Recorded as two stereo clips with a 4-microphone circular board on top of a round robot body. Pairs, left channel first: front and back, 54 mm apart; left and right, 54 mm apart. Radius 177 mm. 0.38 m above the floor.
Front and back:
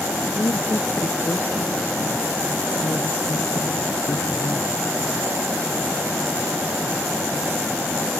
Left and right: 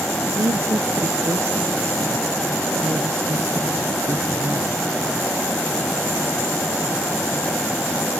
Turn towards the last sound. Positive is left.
turn(degrees=-40)